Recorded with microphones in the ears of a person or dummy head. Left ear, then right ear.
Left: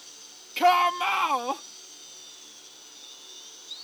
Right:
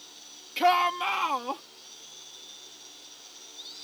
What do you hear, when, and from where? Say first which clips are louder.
0.6 s a shout: left 2 dB; 5° left (ahead or behind); by 1.6 s 20° left (ahead or behind)